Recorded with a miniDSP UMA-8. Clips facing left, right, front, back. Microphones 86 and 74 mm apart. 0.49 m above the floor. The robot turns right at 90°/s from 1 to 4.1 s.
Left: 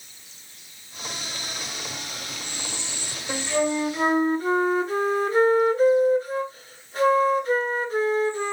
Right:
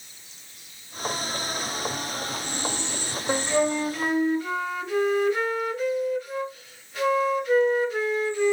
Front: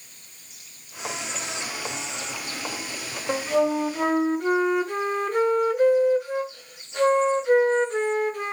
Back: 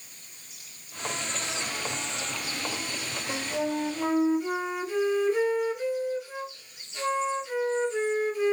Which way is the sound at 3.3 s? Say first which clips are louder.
Right 1 dB, front 8 dB; 35° right.